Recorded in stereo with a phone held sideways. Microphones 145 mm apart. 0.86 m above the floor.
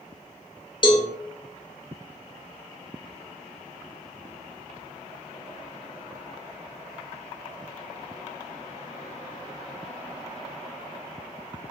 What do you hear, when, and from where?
0.8 s a cowbell: 35° left (ahead or behind), 0.8 m